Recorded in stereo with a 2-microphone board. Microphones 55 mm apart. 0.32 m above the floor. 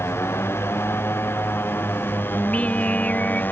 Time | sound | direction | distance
0.0 | a motorcycle | 50° left (ahead or behind) | ?
2.3 | singing | 25° left (ahead or behind) | ?